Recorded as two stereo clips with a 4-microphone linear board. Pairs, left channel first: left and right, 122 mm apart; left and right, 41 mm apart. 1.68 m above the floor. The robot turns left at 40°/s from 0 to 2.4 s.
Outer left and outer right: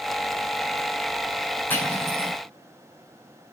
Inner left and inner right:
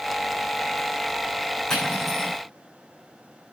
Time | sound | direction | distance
1.7 | cutlery clinking | 15° left (ahead or behind) | 7.5 m